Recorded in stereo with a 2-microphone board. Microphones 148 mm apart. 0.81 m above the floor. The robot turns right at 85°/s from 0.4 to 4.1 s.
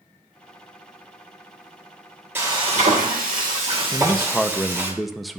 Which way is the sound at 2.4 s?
165° right.